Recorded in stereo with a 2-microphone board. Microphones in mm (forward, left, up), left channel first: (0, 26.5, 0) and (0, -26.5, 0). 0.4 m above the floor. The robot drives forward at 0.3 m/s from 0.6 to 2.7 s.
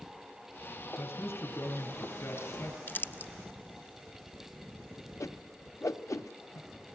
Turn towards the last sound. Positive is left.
turn(degrees=75)  # may be behind; listen again after turning